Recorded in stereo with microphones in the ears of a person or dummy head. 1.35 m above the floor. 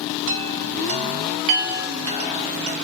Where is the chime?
80° right, 0.6 m.